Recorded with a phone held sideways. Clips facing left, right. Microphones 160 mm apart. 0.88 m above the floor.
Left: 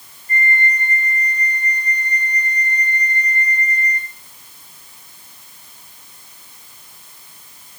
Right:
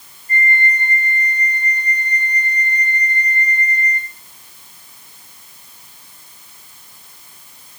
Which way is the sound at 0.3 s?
35° right (ahead or behind).